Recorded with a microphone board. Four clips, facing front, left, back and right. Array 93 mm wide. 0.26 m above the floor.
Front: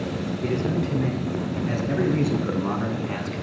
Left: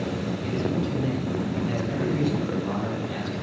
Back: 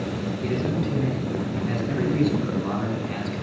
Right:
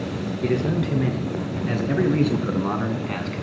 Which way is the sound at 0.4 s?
80° right.